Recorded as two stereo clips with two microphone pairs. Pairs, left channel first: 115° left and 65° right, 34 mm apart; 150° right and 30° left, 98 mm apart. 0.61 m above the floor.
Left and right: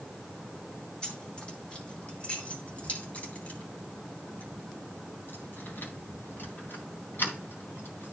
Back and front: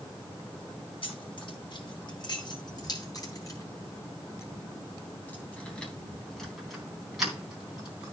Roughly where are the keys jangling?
Behind.